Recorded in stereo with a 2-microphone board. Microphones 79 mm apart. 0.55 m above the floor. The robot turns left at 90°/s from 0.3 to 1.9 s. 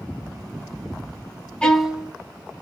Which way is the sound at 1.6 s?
15° left (ahead or behind).